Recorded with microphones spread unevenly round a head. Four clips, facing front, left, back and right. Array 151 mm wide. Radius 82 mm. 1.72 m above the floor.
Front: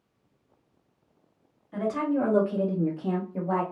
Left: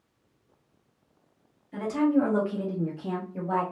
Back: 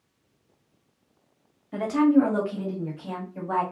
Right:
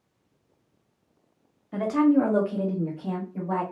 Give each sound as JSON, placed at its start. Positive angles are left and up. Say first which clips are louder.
{"t": 1.7, "sound": "a woman speaking", "louder": "right 3 dB, back 7 dB", "azimuth_deg": -135, "distance_m": 0.8}